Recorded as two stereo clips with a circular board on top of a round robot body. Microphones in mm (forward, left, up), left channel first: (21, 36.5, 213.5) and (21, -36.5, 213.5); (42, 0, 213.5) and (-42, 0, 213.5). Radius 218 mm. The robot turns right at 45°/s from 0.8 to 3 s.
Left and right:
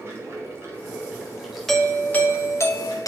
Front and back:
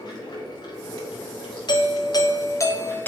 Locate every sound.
0.0 s running water: 35° right, 3 m; by 3.1 s 65° left, 3 m
1.7 s a doorbell: 5° left, 1.8 m; by 3.1 s 65° left, 1.8 m